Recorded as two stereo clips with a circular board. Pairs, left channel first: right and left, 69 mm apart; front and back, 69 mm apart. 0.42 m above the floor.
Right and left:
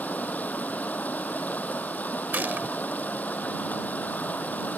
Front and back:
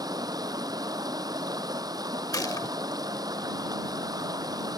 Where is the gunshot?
25° left.